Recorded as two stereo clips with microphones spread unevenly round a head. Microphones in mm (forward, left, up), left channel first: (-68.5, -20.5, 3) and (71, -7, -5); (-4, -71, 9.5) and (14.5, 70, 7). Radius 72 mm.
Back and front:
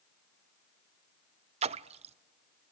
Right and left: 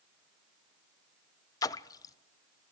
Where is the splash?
35° right, 0.5 m.